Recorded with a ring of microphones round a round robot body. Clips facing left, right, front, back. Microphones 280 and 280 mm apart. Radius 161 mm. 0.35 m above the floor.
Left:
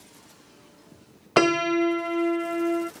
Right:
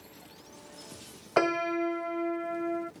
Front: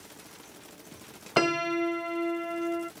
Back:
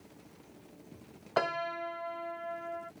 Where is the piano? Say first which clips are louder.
Left 7 dB, front 9 dB; 50° left.